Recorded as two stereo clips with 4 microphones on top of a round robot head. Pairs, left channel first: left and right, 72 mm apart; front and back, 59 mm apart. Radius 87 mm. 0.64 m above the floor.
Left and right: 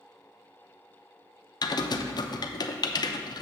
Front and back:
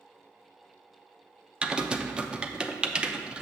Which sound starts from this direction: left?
Typing on a keyboard, at 1.6 s.